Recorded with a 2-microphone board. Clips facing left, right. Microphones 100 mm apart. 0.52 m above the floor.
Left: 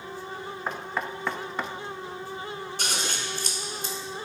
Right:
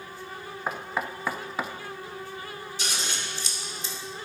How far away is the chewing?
I don't hear chewing.